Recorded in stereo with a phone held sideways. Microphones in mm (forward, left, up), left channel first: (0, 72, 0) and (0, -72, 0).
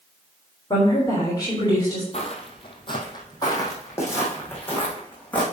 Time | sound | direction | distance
0.7 | a woman speaking | 30° left (ahead or behind) | 3.5 m
2.1 | footsteps | 50° left (ahead or behind) | 2.0 m